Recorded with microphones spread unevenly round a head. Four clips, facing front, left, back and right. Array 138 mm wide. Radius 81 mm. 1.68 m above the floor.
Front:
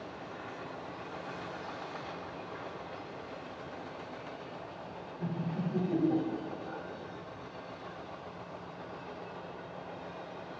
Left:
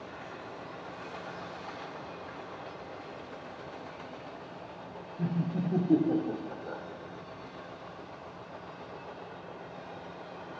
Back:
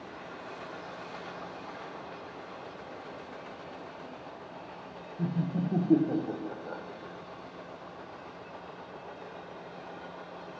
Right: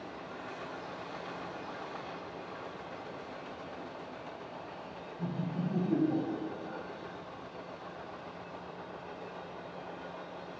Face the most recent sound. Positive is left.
turn(degrees=140)